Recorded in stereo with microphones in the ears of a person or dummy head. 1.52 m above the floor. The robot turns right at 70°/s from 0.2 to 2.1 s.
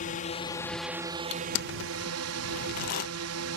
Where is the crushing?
60° left (ahead or behind); by 3.1 s 45° left (ahead or behind).